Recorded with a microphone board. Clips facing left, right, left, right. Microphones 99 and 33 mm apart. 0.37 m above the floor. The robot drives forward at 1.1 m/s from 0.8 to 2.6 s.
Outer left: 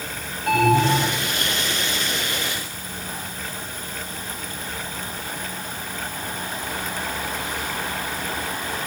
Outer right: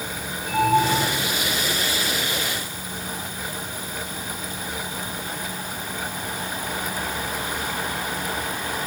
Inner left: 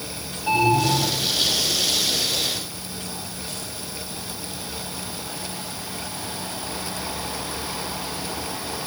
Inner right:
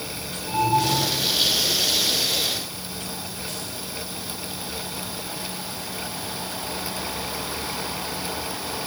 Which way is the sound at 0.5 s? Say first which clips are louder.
Outer left 2 dB, inner left 2 dB; 75° left (ahead or behind).